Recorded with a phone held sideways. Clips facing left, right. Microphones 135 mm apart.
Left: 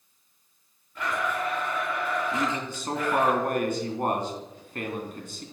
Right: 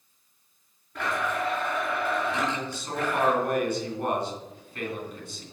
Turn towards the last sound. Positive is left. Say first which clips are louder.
# left 1 dB
turn(degrees=50)  # may be behind; listen again after turning